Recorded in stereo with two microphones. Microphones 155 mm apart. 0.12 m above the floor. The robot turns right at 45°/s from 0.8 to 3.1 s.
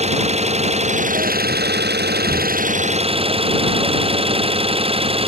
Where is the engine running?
140° right; by 5.3 s 35° right.